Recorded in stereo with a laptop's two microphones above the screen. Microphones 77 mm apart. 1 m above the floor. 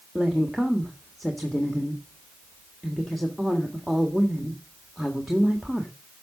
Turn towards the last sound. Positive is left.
turn(degrees=0)  # may be behind; listen again after turning